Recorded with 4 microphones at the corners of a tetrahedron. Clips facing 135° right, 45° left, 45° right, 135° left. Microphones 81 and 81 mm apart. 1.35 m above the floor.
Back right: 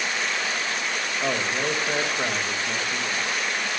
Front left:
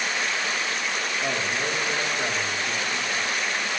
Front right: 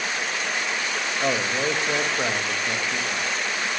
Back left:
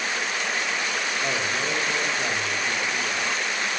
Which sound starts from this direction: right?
A man speaking, at 1.2 s.